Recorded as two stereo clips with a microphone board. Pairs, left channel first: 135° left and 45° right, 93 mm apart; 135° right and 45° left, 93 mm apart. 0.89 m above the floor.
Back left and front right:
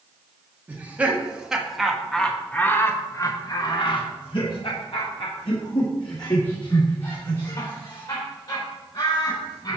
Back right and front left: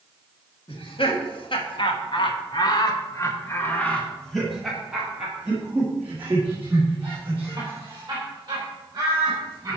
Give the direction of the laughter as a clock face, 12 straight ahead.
4 o'clock.